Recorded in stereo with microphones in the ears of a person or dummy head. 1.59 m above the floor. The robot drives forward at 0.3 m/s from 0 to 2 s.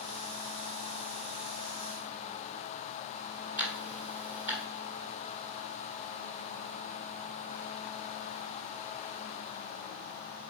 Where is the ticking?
5° right (ahead or behind), 1.6 m.